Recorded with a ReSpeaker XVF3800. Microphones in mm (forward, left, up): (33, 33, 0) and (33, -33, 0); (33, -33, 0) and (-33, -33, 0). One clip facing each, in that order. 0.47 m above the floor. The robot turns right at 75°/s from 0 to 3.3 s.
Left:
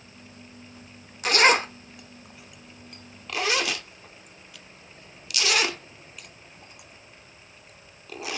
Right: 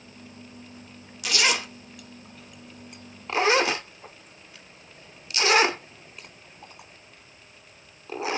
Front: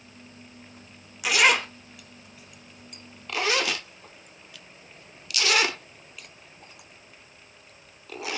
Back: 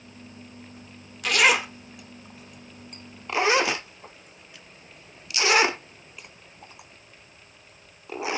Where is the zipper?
75° left, 0.6 m; by 8.4 s 130° right, 0.6 m.